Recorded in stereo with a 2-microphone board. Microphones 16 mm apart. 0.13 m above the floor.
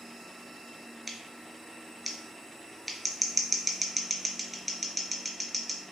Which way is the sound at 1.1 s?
Centre (ahead or behind).